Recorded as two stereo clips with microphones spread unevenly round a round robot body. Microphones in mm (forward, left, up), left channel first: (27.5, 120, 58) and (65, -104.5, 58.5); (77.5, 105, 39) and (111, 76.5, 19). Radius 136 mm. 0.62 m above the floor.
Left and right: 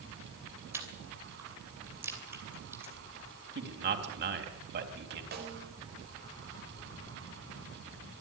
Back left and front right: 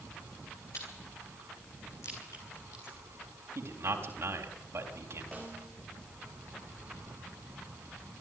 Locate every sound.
0.7 s chewing: 160° right, 2.5 m
3.5 s a man speaking: 40° right, 3.5 m
5.3 s a snare drum: 130° right, 3.5 m